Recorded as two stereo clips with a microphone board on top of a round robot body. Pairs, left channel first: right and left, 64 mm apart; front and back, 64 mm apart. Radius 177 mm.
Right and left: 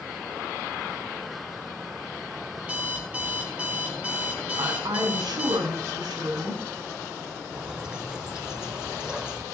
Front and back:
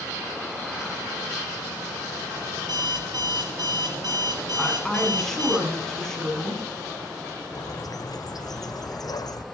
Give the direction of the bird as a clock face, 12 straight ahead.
12 o'clock.